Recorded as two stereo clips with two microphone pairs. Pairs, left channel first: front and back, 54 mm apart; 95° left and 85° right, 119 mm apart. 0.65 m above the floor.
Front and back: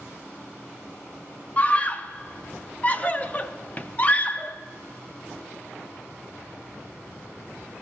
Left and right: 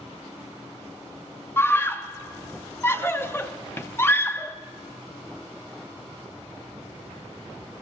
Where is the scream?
35° left, 0.7 m.